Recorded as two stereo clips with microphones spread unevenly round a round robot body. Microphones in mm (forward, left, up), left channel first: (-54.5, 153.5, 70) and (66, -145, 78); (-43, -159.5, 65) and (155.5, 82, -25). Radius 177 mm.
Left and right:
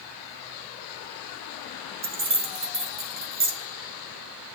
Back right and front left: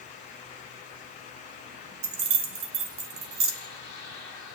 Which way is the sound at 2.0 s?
5° left.